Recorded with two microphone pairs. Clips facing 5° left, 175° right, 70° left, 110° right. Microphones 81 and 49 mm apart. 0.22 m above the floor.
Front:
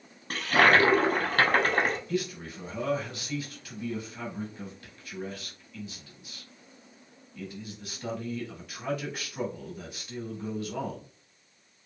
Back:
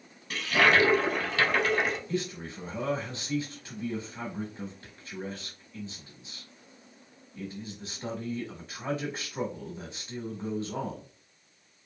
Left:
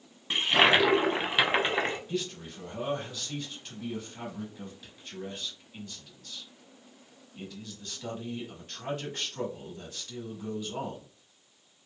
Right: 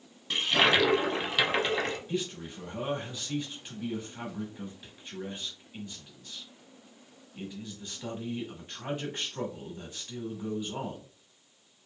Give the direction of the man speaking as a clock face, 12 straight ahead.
6 o'clock.